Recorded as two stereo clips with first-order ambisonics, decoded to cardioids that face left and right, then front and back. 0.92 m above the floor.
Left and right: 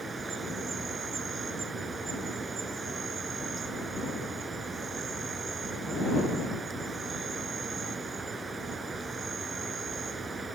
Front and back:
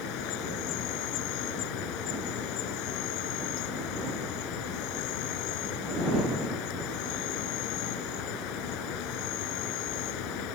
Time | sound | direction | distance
0.0 | an insect | 20° right | ?